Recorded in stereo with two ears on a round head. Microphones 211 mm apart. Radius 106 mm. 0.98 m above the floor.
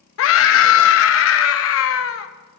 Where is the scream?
60° left (ahead or behind), 0.7 m.